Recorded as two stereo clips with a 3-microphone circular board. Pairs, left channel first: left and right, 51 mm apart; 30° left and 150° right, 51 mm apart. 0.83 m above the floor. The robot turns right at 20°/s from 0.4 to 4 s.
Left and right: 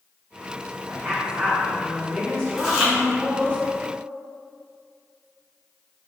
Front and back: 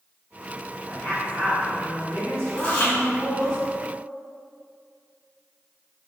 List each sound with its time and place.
0.9 s a woman speaking: 20° right, 1.0 m; by 3.6 s 35° left, 1.0 m
2.6 s chewing: 15° right, 0.9 m; by 2.9 s 10° right, 0.9 m